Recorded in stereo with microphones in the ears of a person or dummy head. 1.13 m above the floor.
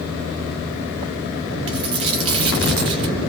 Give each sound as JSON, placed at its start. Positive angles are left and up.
{"t": 1.7, "sound": "a dropped coin", "side_deg": -30, "distance_m": 0.6}